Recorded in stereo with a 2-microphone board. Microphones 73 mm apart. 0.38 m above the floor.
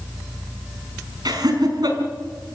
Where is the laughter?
70° right (ahead or behind), 4.5 m.